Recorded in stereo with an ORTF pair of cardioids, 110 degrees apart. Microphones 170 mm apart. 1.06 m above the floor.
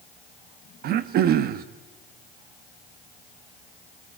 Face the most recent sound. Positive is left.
turn(degrees=-65)